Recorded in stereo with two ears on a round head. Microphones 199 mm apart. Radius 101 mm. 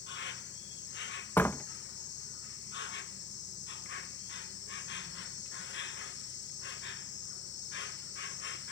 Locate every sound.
0.0 s an insect: 55° left (ahead or behind)
1.4 s a door slam: 10° left (ahead or behind)